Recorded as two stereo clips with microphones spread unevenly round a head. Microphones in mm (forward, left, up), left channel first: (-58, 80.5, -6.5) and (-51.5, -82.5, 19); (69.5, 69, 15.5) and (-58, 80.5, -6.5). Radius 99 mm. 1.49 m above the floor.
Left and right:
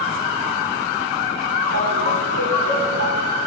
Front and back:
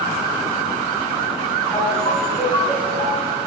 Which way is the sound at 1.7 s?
80° right.